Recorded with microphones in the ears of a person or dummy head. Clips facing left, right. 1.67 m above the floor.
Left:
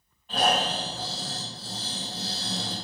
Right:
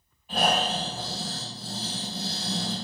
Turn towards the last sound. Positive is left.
turn(degrees=-5)  # may be behind; listen again after turning